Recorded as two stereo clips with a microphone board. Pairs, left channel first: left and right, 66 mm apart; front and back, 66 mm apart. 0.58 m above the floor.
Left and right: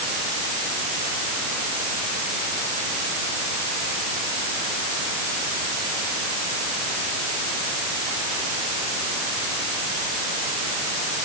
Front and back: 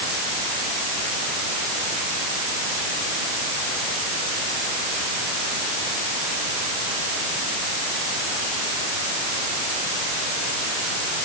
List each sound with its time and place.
Only background noise.